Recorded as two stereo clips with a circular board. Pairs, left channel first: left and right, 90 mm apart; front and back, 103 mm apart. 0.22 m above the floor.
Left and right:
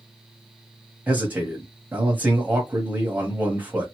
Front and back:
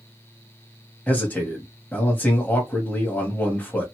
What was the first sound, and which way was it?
A man speaking, 50° right.